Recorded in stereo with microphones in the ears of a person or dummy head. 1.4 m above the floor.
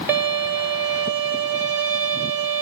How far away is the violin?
About 1.4 m.